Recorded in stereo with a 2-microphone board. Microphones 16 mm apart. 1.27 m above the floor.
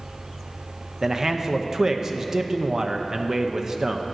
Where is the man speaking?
30° right (ahead or behind), 0.6 m.